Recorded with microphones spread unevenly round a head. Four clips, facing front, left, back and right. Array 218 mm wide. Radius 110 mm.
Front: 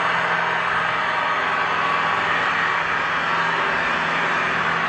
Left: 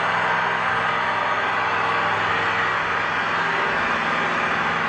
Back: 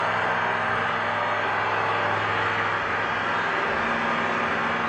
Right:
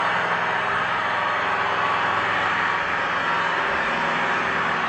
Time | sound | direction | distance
0.0 | an engine running | 145° left | 1.3 m